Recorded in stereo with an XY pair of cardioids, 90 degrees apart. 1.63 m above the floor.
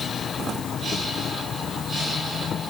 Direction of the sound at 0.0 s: 70° left.